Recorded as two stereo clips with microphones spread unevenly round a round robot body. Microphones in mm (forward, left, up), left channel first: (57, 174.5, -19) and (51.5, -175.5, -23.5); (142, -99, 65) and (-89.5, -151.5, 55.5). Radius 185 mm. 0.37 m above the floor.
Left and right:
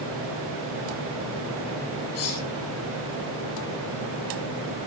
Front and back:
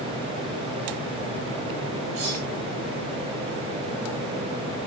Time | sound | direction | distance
2.1 | cutlery clinking | 145° left | 7.5 m